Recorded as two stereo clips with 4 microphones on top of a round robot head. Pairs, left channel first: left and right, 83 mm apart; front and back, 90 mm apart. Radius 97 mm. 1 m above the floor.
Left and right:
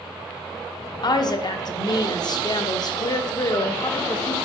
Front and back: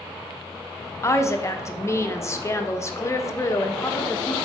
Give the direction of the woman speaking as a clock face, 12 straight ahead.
10 o'clock.